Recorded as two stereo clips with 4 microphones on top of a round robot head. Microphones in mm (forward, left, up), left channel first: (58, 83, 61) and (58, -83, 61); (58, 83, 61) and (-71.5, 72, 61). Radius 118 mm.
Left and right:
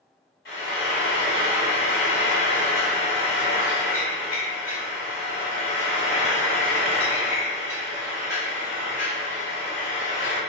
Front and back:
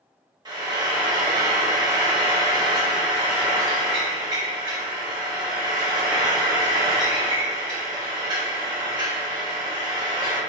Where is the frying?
130° left, 0.8 m.